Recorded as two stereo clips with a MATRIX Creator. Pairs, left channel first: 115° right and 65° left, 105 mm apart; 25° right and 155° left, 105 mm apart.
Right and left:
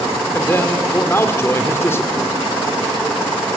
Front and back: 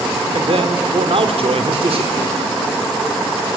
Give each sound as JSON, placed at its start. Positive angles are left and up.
{"t": 0.3, "sound": "a man speaking", "azimuth_deg": 180, "distance_m": 2.0}